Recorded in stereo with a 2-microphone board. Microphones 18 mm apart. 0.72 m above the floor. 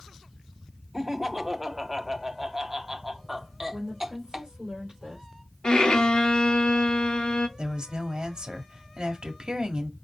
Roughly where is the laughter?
Right.